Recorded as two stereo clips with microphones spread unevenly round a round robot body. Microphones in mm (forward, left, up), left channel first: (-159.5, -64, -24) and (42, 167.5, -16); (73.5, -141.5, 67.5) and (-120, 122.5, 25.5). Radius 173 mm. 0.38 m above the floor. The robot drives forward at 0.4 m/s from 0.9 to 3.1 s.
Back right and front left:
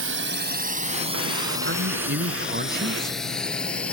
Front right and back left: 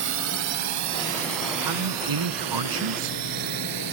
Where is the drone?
85° left; by 3.9 s 145° left.